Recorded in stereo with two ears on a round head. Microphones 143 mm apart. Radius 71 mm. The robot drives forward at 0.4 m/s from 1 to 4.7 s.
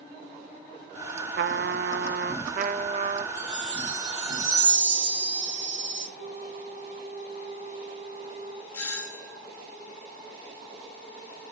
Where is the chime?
80° right, 6.5 m.